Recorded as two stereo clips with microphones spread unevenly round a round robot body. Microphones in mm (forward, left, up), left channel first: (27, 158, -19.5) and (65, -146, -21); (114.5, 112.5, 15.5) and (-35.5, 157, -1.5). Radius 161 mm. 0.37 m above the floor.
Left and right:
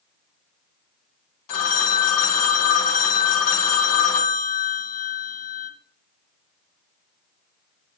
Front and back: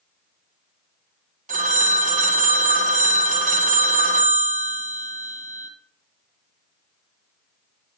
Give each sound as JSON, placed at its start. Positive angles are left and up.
{"t": 1.5, "sound": "a phone ringing", "azimuth_deg": 130, "distance_m": 1.7}